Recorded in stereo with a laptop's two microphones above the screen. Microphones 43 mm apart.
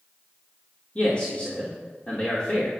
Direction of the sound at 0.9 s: 30° left (ahead or behind).